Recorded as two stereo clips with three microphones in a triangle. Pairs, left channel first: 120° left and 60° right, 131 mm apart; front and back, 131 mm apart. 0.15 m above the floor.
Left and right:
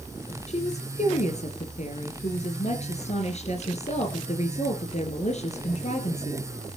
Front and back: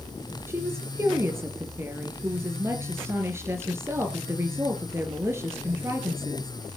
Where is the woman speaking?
115° left, 3 m.